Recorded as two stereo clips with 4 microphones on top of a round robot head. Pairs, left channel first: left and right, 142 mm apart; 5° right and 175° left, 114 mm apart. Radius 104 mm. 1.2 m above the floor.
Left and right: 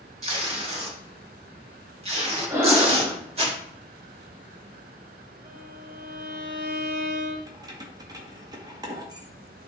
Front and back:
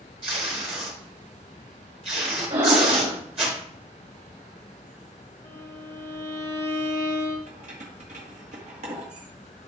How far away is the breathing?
About 3 m.